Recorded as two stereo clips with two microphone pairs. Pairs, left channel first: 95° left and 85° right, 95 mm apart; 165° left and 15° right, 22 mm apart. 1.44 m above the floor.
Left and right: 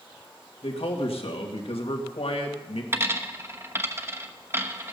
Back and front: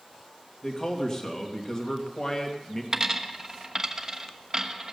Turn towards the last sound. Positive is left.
turn(degrees=-45)